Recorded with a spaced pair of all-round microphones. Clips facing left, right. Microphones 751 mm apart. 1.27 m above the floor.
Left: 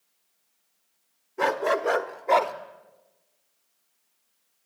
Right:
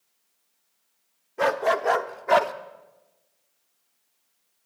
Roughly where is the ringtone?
I don't hear a ringtone.